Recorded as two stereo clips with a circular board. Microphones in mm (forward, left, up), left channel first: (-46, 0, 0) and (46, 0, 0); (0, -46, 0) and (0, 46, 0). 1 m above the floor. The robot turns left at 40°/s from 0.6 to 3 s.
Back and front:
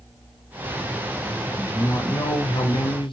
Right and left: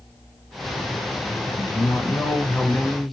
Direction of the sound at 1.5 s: 120° right.